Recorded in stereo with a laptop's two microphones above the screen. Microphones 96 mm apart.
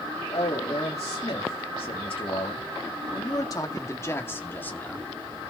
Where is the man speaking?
80° left, 2 m; by 5.1 s 15° left (ahead or behind), 2.5 m.